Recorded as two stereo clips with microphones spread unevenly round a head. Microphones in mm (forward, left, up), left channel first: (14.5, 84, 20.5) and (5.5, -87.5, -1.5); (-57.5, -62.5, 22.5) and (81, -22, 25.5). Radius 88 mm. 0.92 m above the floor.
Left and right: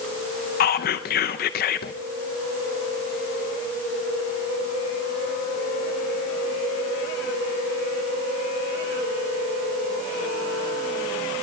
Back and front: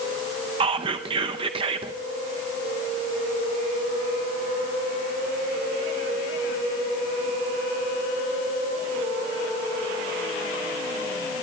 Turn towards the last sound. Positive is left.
turn(degrees=65)